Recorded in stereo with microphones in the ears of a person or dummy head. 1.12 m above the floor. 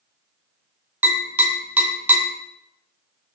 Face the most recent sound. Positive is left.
turn(degrees=-15)  # may be behind; listen again after turning